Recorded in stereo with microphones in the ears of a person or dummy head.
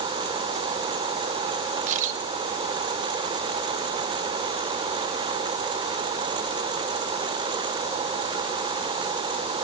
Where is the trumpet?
I don't hear a trumpet.